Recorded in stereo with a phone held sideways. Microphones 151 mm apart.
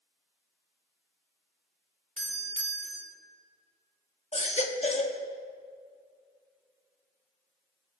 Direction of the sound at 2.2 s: 55° right (ahead or behind).